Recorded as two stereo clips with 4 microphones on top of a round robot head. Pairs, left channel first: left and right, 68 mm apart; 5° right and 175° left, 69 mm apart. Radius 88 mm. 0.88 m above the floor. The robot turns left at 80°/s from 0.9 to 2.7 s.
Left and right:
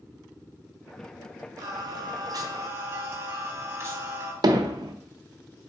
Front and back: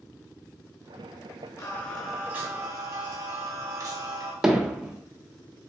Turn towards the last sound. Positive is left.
turn(degrees=-100)